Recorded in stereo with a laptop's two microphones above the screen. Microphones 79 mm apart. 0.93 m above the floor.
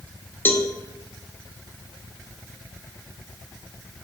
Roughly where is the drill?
No drill in this recording.